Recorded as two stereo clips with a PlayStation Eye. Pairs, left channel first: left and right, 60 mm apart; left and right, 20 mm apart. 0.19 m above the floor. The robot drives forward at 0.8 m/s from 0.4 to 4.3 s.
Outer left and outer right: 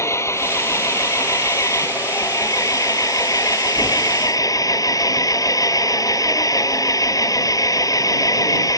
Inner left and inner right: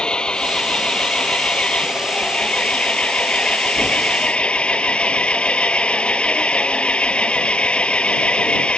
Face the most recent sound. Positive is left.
turn(degrees=75)  # may be behind; listen again after turning